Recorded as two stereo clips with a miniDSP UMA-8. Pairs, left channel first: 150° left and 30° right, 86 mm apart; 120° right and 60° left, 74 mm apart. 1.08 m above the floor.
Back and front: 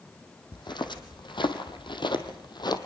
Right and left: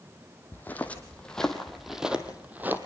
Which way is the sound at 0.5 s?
175° left.